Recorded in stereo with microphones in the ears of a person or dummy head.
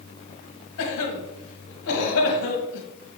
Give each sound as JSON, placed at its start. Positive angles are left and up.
{"t": 0.8, "sound": "a cough", "side_deg": 80, "distance_m": 1.5}